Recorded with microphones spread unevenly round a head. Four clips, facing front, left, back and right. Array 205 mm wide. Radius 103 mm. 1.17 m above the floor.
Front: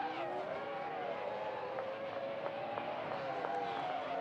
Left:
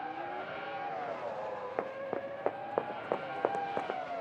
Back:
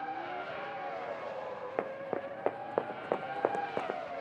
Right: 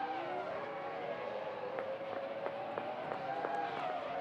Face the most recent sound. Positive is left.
turn(degrees=155)